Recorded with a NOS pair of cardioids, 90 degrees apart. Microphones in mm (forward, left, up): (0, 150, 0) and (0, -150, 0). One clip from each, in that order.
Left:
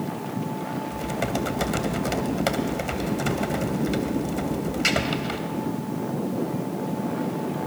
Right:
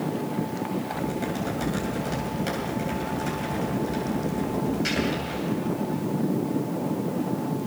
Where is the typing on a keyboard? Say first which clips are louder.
Left 2 dB; 65° left, 3 m.